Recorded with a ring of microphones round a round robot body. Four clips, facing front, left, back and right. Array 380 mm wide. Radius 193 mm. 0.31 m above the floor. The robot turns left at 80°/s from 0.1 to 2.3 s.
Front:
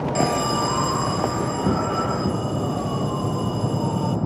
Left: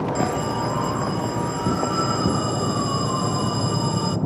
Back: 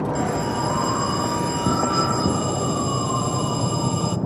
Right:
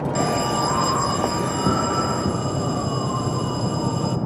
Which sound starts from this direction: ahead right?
An alarm, at 0.1 s.